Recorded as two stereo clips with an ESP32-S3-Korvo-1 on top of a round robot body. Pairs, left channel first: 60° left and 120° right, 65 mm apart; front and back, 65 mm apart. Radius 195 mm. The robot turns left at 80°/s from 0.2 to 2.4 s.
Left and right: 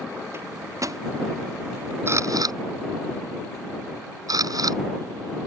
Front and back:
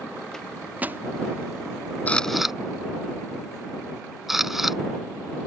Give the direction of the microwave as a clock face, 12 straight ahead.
3 o'clock.